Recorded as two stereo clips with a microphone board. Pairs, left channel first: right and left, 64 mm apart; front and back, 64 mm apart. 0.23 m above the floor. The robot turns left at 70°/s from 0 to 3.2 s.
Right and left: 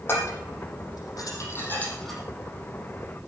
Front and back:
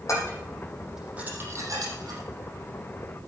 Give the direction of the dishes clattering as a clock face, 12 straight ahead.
1 o'clock.